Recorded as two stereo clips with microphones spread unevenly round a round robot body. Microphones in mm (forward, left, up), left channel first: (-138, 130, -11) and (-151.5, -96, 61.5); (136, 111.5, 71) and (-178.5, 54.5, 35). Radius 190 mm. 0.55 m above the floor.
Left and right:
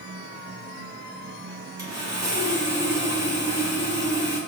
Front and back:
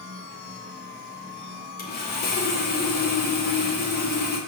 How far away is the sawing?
About 1.2 m.